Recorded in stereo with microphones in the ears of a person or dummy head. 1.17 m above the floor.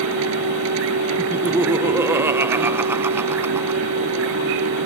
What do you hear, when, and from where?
0.0 s a machine running: 80° right
1.2 s laughter: 15° right (ahead or behind)